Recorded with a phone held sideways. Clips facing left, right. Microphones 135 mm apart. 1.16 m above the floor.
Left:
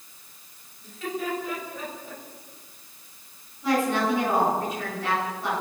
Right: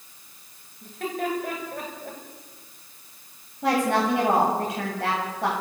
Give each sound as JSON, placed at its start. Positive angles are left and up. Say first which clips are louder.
{"t": 0.8, "sound": "laughter", "louder": "right 2 dB", "side_deg": -55, "distance_m": 8.5}
{"t": 3.6, "sound": "a woman speaking", "louder": "right 1 dB", "side_deg": -75, "distance_m": 8.5}